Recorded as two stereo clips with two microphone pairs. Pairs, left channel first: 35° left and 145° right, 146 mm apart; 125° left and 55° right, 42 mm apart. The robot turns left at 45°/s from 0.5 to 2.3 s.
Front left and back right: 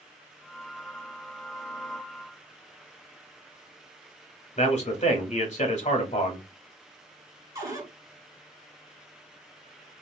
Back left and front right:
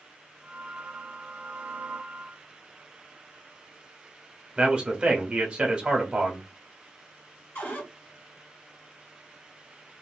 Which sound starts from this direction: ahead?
A man speaking, at 4.6 s.